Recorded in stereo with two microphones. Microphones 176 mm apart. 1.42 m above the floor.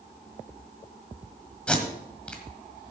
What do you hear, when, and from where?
1.7 s tape being pulled: 5° left (ahead or behind), 1.8 m